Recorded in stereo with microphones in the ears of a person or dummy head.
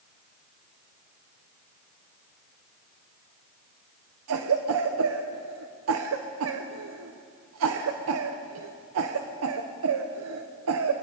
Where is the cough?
85° right, 1.1 m.